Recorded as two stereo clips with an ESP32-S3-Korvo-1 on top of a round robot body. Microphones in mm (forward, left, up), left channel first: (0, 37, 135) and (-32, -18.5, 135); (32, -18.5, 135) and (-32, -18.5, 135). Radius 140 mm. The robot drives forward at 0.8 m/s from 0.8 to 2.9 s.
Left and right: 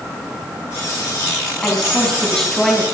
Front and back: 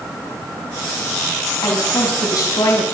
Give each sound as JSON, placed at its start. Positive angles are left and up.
{"t": 1.6, "sound": "a woman speaking", "azimuth_deg": -20, "distance_m": 4.0}